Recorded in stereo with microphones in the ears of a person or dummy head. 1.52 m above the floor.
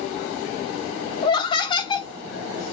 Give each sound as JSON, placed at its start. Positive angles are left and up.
{"t": 1.2, "sound": "laughter", "side_deg": 25, "distance_m": 0.6}